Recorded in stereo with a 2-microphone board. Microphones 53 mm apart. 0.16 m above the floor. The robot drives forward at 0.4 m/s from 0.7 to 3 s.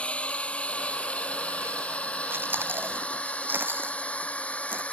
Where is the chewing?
45° right (ahead or behind); by 4.8 s 40° right (ahead or behind).